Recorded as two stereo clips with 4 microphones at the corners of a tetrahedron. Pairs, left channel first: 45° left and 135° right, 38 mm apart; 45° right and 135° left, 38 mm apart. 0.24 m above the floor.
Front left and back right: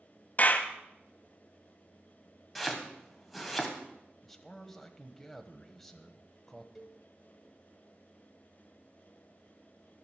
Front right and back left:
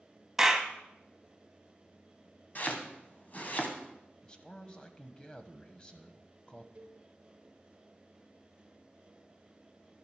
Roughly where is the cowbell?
Behind left.